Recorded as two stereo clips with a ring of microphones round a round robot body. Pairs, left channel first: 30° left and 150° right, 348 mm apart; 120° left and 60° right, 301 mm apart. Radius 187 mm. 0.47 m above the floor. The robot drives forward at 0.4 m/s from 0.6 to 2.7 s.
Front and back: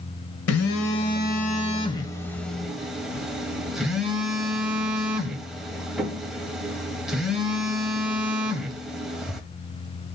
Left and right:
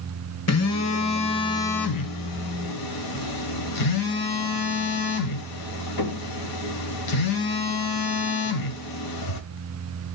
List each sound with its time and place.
0.5 s a phone buzzing: 80° left, 1.1 m; by 9.4 s 120° left, 1.3 m